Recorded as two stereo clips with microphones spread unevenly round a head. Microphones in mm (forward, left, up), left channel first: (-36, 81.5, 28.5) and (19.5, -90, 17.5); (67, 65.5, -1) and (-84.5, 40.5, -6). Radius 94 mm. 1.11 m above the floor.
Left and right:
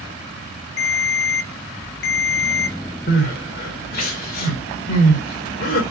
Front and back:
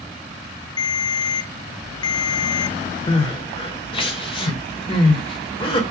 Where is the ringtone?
70° left, 1.0 m.